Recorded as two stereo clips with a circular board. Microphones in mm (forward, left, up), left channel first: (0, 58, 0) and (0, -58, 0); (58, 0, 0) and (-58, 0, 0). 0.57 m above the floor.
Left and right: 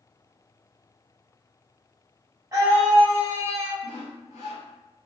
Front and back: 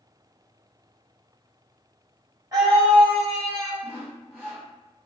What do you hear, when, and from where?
2.5 s a scream: 140° right, 1.4 m
3.8 s sawing: 80° left, 1.2 m